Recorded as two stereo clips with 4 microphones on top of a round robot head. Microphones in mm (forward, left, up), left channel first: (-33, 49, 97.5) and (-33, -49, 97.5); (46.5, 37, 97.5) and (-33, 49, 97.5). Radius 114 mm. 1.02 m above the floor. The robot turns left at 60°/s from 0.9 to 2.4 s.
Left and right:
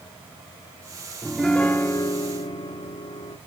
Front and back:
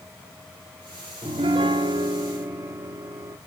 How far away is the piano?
About 0.7 m.